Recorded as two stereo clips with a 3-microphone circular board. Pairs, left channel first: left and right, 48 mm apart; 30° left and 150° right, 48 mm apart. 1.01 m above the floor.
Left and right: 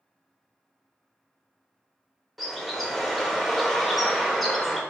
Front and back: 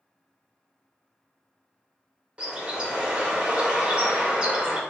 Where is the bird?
175° left, 0.7 m.